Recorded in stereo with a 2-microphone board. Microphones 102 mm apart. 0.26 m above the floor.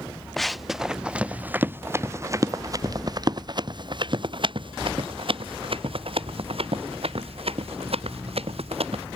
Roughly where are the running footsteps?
Centre.